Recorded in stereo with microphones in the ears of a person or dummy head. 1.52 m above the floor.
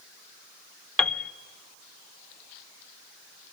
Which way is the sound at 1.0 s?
5° left (ahead or behind).